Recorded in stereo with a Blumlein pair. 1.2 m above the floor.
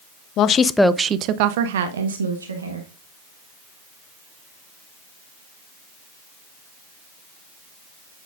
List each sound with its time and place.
0.4 s a woman speaking: 35° left, 0.6 m; by 2.9 s 80° right, 1.6 m